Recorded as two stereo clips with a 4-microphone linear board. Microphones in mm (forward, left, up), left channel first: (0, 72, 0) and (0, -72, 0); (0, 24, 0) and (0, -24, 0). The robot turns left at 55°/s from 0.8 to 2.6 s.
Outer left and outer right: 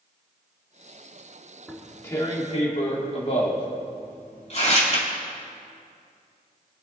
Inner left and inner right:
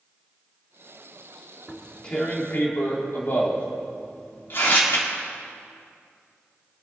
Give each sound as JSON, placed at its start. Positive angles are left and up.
{"t": 1.7, "sound": "tearing paper", "side_deg": 0, "distance_m": 2.0}